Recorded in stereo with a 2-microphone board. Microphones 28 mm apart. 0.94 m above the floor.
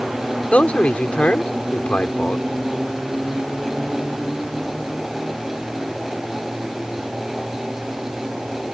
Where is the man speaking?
55° left (ahead or behind).